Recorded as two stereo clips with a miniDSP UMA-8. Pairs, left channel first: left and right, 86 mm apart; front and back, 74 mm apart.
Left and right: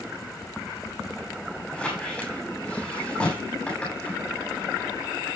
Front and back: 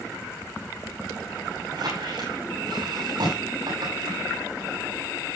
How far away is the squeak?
About 8 m.